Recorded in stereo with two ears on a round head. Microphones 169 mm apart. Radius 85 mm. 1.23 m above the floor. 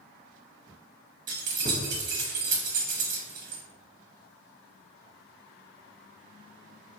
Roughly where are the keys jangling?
Right.